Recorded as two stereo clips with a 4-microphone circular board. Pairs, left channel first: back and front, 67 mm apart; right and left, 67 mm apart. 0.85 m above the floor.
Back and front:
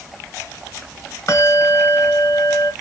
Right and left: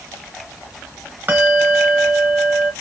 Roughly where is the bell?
Behind left.